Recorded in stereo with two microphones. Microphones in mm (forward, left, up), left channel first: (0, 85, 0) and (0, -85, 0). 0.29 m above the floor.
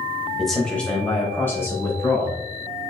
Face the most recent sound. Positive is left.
turn(degrees=15)  # may be behind; listen again after turning